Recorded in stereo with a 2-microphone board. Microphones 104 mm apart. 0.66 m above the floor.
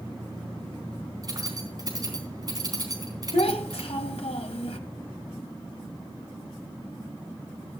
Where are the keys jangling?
40° right (ahead or behind), 4 m.